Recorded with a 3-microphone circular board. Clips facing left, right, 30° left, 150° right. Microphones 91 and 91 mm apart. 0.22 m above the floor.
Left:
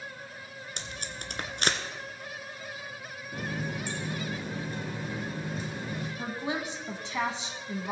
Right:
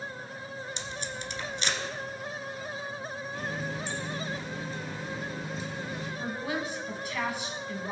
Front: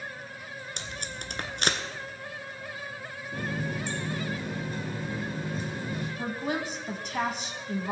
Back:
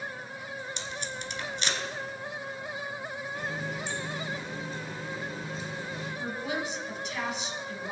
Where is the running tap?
60° left, 2.5 m.